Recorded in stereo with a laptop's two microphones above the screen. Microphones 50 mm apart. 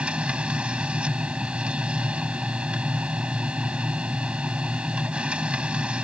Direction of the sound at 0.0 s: 20° right (ahead or behind).